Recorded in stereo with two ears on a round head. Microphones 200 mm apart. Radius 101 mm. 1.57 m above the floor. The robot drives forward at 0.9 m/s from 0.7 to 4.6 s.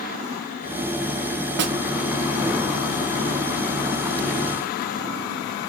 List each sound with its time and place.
1.6 s a snare drum: 50° right (ahead or behind), 1.0 m; by 1.8 s 55° right (ahead or behind), 0.9 m